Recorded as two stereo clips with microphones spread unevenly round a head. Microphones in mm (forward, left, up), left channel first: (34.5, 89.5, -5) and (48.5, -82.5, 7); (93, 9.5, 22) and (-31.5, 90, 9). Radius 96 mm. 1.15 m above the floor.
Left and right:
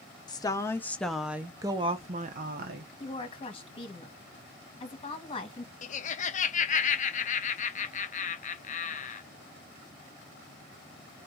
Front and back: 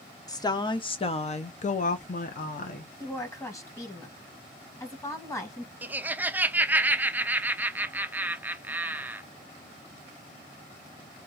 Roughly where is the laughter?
Left.